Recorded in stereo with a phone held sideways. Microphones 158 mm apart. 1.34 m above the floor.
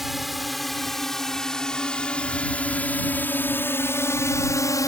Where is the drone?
Centre (ahead or behind); by 4.9 s 20° left (ahead or behind).